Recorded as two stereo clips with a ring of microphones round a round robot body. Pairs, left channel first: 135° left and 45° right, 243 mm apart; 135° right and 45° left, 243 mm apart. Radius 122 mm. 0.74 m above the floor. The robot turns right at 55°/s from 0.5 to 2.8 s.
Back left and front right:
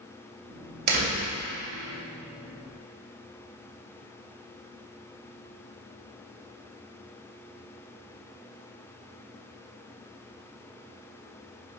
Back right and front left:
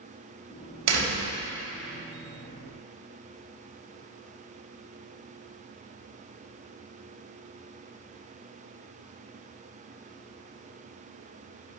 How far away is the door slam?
About 2.5 m.